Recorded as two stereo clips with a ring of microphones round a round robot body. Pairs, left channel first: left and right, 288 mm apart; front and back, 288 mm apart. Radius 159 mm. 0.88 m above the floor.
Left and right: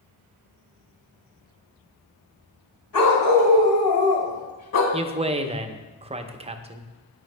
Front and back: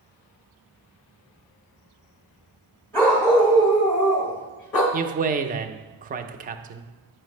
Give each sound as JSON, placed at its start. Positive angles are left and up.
{"t": 2.9, "sound": "a dog barking", "azimuth_deg": 85, "distance_m": 2.0}
{"t": 4.9, "sound": "a man speaking", "azimuth_deg": -145, "distance_m": 0.6}